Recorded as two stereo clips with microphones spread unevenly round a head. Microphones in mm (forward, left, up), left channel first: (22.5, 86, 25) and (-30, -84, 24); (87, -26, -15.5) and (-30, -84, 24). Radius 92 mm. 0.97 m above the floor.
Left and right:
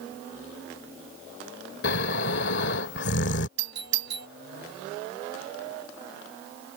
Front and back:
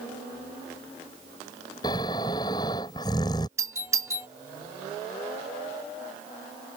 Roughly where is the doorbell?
Right.